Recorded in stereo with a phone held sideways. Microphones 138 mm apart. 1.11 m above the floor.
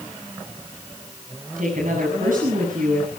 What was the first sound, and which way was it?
A woman speaking, 85° right.